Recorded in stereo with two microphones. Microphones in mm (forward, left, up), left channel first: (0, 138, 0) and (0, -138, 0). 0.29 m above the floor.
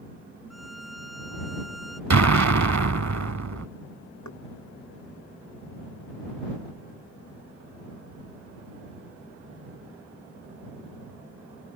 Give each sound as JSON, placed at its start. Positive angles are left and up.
{"t": 0.5, "sound": "a violin", "side_deg": 60}
{"t": 2.1, "sound": "an explosion", "side_deg": -80}
{"t": 4.2, "sound": "knocking", "side_deg": 85}